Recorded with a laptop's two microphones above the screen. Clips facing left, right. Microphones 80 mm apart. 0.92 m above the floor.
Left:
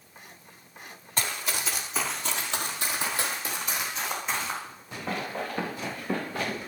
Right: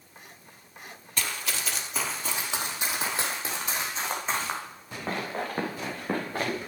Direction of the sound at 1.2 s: 30° left (ahead or behind).